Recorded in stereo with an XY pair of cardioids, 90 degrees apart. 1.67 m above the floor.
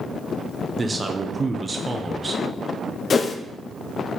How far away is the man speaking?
About 0.9 m.